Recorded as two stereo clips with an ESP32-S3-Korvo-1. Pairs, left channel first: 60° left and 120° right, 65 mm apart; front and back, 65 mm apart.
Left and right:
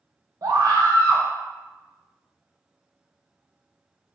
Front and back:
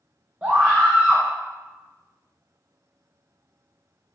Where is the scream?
110° right, 0.6 m.